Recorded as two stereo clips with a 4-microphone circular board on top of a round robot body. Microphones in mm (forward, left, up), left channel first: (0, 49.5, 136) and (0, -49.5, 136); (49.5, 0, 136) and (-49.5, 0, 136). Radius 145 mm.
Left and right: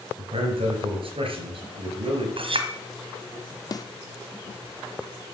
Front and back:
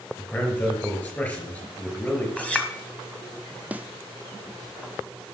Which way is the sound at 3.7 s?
110° left.